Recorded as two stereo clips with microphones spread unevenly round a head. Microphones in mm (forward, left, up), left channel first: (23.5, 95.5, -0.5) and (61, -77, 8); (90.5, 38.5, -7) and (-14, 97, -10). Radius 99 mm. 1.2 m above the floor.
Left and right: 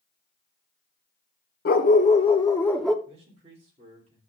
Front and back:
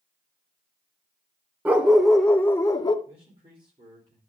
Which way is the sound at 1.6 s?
75° left.